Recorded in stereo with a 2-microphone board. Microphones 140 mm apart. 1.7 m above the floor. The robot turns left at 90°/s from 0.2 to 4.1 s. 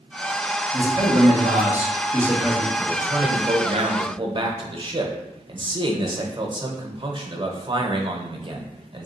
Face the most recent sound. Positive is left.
turn(degrees=-120)